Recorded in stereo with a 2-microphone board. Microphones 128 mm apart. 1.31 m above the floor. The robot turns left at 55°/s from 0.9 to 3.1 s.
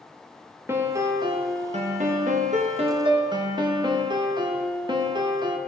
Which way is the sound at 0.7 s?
20° right.